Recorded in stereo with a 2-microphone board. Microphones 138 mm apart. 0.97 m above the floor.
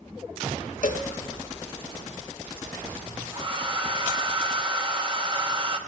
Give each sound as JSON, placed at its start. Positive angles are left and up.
{"t": 0.8, "sound": "a cowbell", "side_deg": 70, "distance_m": 0.9}
{"t": 3.3, "sound": "a hair dryer", "side_deg": -35, "distance_m": 1.2}